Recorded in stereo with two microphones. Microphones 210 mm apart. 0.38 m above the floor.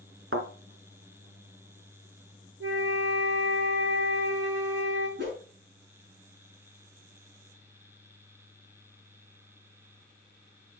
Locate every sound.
0.3 s a thud: 80° right, 1.7 m
2.6 s a flute: 80° right, 6.5 m
5.2 s a whoosh: 60° right (ahead or behind), 5.5 m